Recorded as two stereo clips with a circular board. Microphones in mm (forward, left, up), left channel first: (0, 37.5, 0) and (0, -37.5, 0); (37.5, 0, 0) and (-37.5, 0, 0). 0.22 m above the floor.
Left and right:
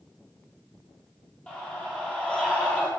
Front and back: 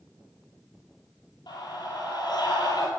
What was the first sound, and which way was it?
A scream, 20° left.